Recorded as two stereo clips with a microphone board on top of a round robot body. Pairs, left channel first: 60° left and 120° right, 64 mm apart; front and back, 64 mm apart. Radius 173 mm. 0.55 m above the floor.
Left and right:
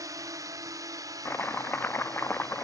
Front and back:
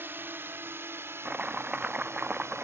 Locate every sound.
0.0 s a drone: 130° right; by 2.6 s 135° right
1.2 s chopping: 115° left